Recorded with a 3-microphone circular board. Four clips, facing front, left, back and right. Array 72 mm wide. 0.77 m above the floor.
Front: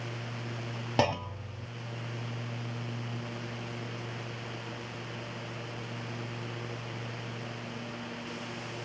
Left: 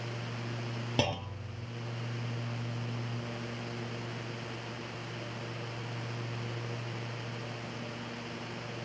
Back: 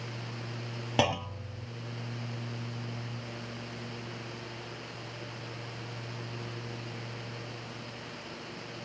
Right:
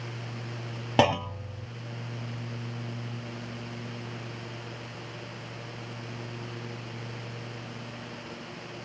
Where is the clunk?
80° right, 0.8 m.